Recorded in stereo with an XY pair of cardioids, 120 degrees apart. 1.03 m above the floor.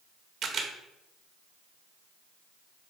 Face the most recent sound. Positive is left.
turn(degrees=-55)